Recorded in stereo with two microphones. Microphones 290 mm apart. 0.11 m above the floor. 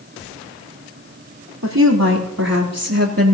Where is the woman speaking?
70° right (ahead or behind), 3.5 m; by 3.3 s 50° right (ahead or behind), 3 m.